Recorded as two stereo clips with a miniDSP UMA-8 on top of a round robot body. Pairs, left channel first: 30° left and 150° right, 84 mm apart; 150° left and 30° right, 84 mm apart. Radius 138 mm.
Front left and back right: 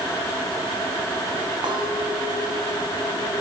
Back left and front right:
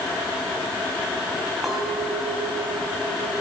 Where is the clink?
120° right, 4 m.